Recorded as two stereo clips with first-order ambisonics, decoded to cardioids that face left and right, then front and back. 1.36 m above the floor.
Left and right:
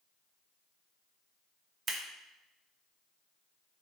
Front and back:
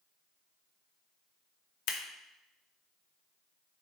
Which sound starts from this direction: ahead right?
Scissors, at 1.9 s.